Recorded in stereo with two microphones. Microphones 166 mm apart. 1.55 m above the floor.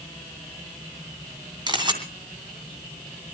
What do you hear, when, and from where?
1.7 s a camera shutter: 25° right (ahead or behind), 2.5 m